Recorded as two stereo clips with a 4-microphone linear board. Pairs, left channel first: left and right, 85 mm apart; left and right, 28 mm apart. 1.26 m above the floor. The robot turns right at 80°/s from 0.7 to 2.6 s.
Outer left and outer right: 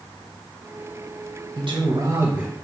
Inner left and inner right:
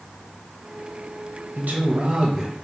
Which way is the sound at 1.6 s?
85° right.